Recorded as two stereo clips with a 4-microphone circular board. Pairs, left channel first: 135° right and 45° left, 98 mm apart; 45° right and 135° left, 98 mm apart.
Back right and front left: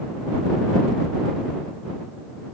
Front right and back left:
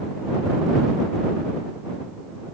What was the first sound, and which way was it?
Only background noise.